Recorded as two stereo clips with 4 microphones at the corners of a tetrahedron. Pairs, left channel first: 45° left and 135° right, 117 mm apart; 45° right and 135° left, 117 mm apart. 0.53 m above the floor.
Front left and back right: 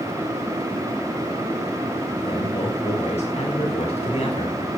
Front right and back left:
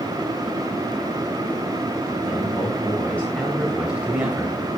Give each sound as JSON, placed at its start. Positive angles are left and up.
{"t": 2.2, "sound": "a man speaking", "azimuth_deg": 15, "distance_m": 3.5}